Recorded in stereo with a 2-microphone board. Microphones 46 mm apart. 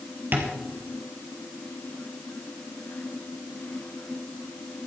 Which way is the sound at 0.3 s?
45° right (ahead or behind).